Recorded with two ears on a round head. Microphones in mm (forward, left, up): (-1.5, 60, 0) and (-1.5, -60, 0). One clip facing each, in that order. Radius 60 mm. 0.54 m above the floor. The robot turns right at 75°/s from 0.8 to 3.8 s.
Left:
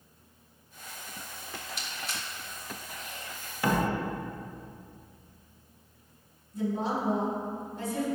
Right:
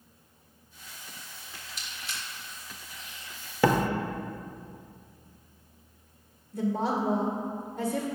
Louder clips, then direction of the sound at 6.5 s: Right 2 dB; 50° right (ahead or behind).